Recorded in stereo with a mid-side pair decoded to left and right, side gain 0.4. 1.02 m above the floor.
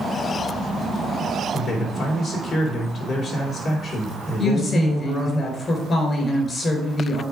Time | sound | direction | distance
1.5 | a man speaking | 70° left | 3.5 m
4.4 | a woman speaking | 50° left | 3.5 m